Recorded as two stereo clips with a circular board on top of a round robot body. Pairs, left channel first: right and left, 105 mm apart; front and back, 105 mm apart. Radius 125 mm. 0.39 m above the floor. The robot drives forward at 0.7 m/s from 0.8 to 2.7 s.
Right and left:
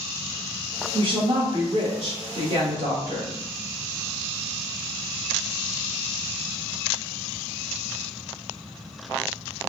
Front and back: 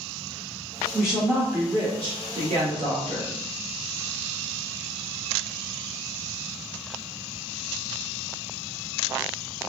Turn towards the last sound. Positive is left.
turn(degrees=150)